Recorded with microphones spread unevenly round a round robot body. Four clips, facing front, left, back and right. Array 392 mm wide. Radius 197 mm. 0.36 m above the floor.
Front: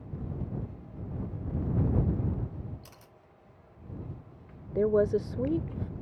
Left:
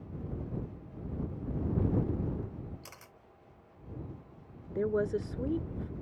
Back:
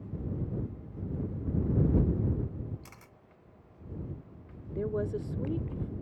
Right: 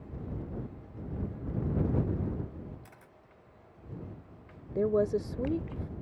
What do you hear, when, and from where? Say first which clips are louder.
2.8 s a camera shutter: left 2 dB, back 1 dB; 125° left
4.8 s a woman speaking: right 3 dB, front 8 dB; 20° right